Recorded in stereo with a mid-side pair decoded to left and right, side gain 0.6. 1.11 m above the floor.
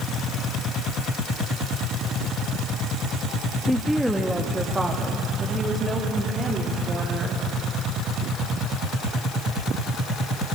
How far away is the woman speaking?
About 1.7 m.